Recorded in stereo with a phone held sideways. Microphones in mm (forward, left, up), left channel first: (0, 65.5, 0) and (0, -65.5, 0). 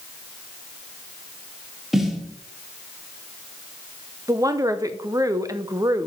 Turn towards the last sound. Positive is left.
turn(degrees=-25)  # may be behind; listen again after turning